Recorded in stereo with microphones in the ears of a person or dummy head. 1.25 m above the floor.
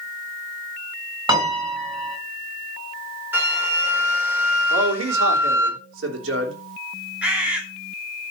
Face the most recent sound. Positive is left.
turn(degrees=-5)  # may be behind; listen again after turning